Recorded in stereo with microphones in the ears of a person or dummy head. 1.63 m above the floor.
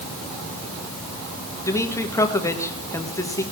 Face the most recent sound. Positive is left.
turn(degrees=25)  # may be behind; listen again after turning